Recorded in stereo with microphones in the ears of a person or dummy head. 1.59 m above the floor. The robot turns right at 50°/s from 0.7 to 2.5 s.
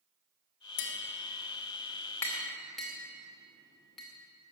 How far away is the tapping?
About 2.5 m.